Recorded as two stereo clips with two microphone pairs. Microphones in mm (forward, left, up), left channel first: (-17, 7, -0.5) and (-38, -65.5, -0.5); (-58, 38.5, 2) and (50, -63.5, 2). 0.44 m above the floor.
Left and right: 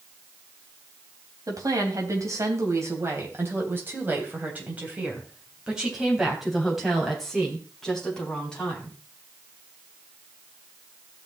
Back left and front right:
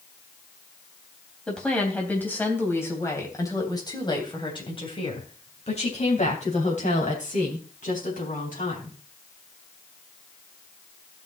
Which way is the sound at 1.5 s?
140° right.